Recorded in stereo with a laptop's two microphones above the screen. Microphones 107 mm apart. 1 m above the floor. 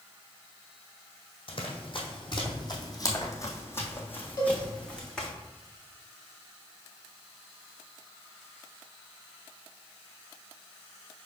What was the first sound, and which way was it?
Running footsteps, 55° left (ahead or behind).